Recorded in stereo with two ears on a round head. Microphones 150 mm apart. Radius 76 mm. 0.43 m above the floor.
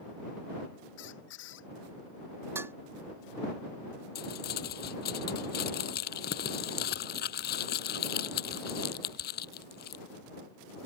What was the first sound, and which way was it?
A squeak, 85° left.